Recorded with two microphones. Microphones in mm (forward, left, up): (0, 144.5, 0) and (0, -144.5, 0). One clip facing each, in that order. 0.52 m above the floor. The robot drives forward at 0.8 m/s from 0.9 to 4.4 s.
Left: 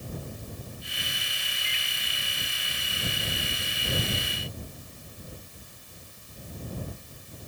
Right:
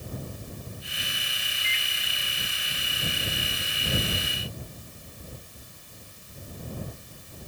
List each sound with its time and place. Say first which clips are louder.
1.6 s a microwave: right 1 dB; 45° left (ahead or behind), 1.0 m; by 1.9 s 50° left (ahead or behind), 0.9 m